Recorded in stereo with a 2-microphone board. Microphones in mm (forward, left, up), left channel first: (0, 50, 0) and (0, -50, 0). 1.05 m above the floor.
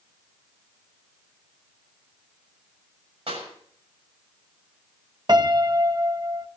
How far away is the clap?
About 6.5 m.